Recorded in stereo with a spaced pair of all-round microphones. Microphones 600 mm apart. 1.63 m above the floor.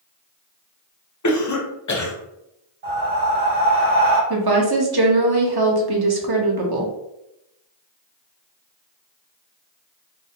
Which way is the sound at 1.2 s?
30° left (ahead or behind).